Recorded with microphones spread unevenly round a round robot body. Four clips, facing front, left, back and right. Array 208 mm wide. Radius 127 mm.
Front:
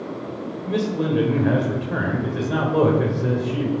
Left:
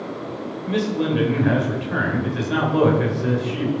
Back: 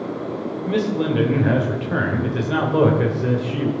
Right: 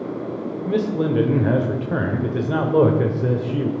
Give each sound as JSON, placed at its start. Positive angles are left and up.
{"t": 0.7, "sound": "a man speaking", "azimuth_deg": -95, "distance_m": 1.5}